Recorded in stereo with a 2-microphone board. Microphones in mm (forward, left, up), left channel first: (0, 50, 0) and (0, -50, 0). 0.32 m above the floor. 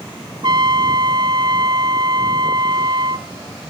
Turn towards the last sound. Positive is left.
turn(degrees=-50)  # may be behind; listen again after turning